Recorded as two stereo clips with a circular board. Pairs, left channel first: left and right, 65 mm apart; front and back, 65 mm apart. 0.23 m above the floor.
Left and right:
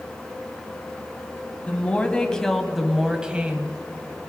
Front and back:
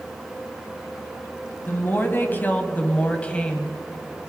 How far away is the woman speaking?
About 1.2 m.